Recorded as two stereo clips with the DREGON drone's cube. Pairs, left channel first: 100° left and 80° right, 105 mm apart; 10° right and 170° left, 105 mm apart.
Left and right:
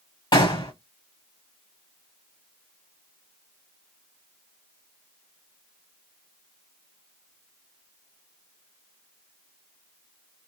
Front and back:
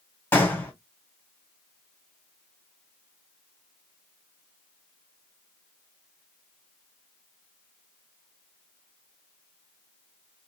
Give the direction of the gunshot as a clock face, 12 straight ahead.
10 o'clock.